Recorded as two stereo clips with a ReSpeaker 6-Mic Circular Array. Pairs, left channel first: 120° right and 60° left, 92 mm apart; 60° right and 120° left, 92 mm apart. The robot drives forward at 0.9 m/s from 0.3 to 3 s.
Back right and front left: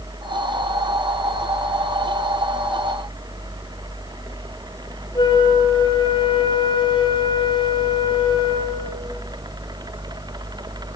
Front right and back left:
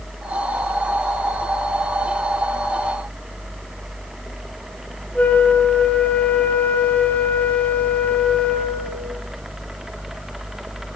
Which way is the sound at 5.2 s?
135° right.